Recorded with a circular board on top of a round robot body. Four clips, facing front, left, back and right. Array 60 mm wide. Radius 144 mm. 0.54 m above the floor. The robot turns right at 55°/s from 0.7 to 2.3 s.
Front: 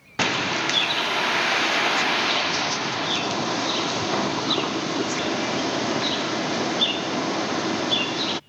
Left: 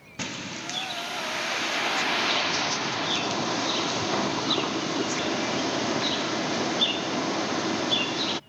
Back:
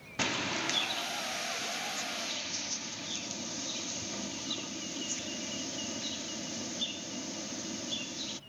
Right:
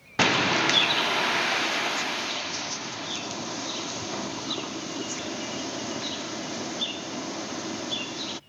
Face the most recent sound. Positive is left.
turn(degrees=30)